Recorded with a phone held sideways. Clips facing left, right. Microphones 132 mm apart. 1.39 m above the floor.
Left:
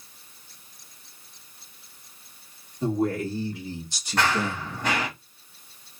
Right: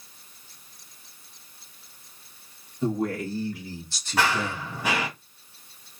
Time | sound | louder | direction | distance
2.8 | a man speaking | left 2 dB | 30° left (ahead or behind) | 2.5 m
4.2 | running footsteps | even | 5° right (ahead or behind) | 1.7 m